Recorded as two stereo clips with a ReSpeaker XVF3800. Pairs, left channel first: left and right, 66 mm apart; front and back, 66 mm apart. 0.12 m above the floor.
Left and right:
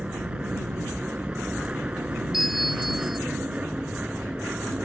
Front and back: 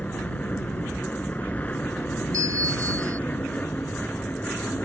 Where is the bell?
175° right.